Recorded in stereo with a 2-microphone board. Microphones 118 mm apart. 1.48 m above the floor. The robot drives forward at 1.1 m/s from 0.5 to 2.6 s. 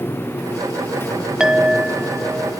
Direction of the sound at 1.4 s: 5° right (ahead or behind).